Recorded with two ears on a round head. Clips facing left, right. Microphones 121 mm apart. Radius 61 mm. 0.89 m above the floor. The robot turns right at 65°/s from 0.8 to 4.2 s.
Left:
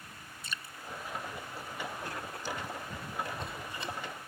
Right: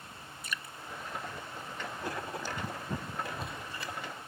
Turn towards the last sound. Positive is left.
turn(degrees=50)